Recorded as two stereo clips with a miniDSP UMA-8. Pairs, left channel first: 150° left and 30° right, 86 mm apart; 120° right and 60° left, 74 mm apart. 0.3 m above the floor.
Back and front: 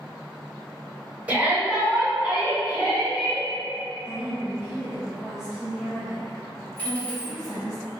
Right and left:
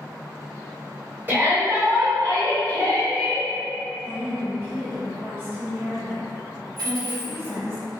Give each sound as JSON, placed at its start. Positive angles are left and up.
{"t": 1.3, "sound": "a shout", "azimuth_deg": 25, "distance_m": 1.4}
{"t": 4.0, "sound": "a woman speaking", "azimuth_deg": 40, "distance_m": 0.9}
{"t": 6.8, "sound": "a dropped coin", "azimuth_deg": 75, "distance_m": 1.5}